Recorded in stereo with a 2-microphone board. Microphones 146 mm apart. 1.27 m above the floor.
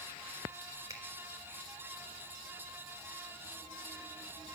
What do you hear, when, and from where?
0.9 s a finger snap: 20° right (ahead or behind), 4 m